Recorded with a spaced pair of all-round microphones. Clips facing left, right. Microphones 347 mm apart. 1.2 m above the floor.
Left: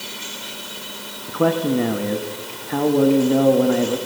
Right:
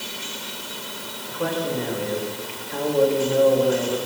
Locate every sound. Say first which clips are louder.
1.3 s a man speaking: left 7 dB; 70° left (ahead or behind), 1.8 m